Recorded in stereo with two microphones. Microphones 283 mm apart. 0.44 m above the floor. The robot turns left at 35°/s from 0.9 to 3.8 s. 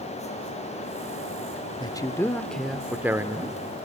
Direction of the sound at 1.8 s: 15° left (ahead or behind).